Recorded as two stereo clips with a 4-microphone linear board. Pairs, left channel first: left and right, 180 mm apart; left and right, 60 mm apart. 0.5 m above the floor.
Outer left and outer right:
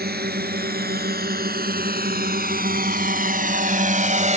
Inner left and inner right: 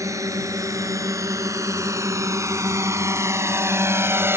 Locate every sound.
0.0 s a drone: 60° right (ahead or behind); by 4.4 s 40° right (ahead or behind)